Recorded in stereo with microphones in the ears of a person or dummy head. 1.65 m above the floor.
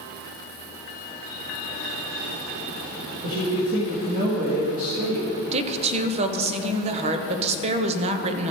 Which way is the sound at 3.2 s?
55° right (ahead or behind).